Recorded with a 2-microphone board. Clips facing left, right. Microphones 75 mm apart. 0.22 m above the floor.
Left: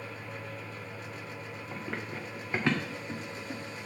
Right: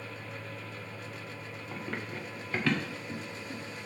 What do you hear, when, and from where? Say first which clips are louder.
1.7 s running footsteps: even; 5° left (ahead or behind), 1.5 m; by 3.9 s 45° left (ahead or behind), 1.7 m